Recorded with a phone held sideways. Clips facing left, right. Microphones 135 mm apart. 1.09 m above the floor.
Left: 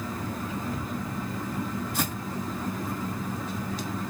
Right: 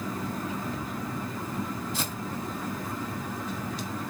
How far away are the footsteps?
About 1.8 m.